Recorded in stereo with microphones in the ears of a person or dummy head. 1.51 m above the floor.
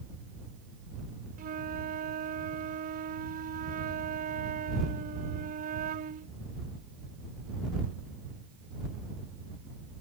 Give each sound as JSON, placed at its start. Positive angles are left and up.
{"t": 1.4, "sound": "a flute", "side_deg": -45}